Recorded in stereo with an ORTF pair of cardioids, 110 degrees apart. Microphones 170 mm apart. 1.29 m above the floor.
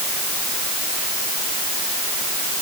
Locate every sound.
Only background noise.